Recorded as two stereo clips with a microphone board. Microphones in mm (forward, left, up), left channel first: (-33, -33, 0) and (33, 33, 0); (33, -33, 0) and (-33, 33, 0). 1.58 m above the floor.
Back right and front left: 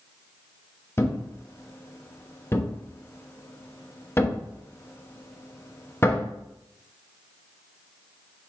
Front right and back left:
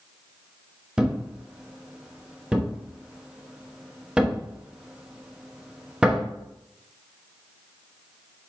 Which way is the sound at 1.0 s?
155° right.